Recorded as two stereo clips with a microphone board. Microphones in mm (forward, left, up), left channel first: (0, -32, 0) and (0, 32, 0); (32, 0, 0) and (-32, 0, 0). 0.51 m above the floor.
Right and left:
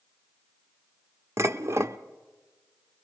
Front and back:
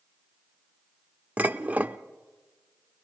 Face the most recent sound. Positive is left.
turn(degrees=120)